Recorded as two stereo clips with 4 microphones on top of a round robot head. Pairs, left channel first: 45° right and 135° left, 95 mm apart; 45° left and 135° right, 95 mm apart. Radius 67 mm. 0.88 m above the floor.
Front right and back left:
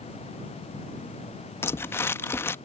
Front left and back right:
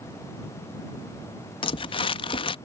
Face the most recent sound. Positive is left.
turn(degrees=20)